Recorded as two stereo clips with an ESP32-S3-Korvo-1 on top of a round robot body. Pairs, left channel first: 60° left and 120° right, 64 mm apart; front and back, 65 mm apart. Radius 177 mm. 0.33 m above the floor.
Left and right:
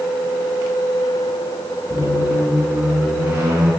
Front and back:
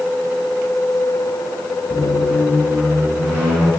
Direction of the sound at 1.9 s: 110° right.